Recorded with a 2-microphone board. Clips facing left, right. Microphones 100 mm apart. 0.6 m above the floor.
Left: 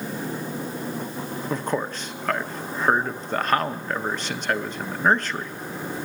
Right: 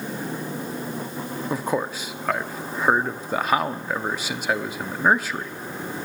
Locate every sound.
1.5 s a man speaking: 10° right (ahead or behind), 0.7 m